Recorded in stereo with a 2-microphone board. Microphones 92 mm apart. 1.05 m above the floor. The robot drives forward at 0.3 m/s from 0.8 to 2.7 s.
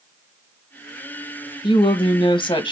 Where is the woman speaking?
75° left (ahead or behind), 0.8 m; by 2.7 s 60° left (ahead or behind), 0.9 m.